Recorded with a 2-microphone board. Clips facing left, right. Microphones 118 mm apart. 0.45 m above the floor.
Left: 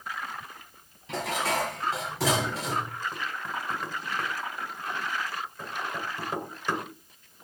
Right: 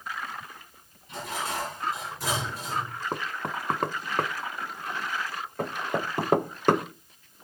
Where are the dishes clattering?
85° left, 6 m.